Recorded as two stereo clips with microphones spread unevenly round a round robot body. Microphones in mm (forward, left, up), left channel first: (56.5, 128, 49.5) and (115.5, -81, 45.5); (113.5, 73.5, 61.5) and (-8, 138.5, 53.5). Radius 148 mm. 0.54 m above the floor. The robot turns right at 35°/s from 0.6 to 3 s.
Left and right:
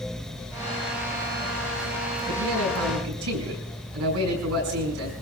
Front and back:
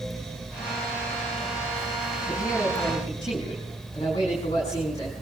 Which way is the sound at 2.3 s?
125° right.